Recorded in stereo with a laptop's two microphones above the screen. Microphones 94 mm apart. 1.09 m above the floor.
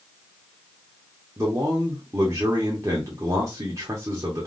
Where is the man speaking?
35° right (ahead or behind), 0.9 m.